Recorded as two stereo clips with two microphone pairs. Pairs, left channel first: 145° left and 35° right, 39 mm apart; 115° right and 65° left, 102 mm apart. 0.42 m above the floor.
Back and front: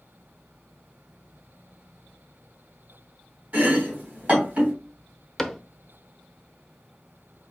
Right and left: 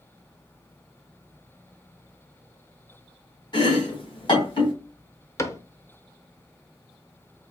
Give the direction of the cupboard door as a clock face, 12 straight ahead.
5 o'clock.